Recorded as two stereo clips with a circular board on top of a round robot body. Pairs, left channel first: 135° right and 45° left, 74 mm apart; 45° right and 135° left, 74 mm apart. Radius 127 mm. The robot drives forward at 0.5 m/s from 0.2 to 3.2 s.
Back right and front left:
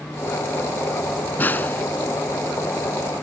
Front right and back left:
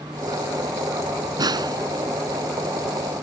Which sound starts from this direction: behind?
A snare drum, at 1.4 s.